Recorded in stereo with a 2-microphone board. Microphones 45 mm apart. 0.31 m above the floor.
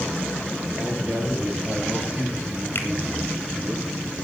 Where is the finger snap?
55° left (ahead or behind), 3.5 m.